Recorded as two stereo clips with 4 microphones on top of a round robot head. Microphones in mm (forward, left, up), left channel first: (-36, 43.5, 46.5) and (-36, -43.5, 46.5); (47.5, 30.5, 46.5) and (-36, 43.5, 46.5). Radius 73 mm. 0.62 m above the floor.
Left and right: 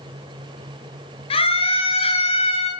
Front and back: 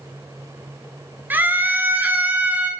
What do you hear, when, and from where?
1.3 s a scream: 105° left, 8.5 m; by 2.7 s 100° left, 7.5 m